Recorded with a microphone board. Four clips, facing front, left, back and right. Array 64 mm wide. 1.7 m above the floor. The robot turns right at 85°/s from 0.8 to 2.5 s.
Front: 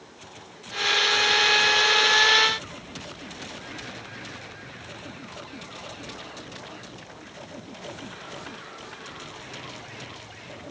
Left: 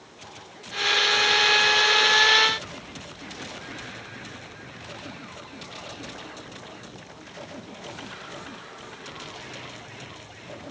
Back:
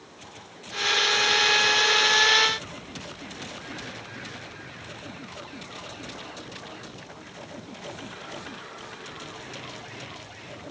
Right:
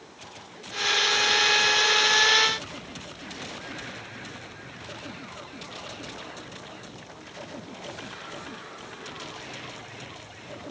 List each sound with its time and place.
Only background noise.